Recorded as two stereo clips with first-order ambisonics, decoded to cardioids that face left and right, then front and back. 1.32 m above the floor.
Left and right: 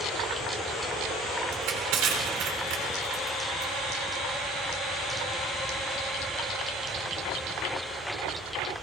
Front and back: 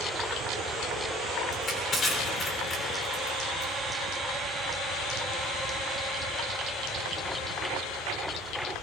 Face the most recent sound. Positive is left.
turn(degrees=-60)